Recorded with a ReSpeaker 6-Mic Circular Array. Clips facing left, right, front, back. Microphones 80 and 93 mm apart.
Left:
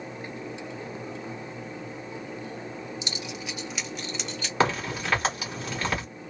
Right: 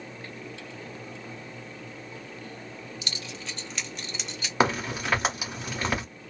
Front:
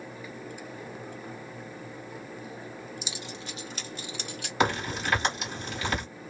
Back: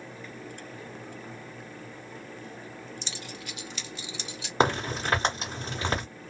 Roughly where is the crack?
Behind.